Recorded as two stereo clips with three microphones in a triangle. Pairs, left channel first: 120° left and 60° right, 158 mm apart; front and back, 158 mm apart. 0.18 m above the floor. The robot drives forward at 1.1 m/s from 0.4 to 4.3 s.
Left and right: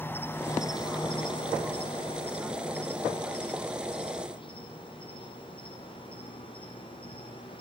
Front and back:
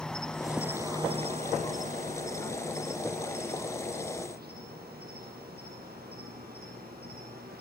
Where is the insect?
75° left, 1.0 m; by 7.6 s 175° left, 4.5 m.